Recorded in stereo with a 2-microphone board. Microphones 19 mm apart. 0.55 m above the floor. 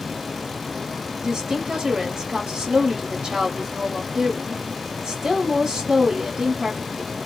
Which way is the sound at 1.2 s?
25° right (ahead or behind).